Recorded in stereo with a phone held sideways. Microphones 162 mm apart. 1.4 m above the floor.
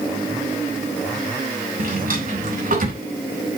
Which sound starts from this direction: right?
A drawer, at 1.8 s.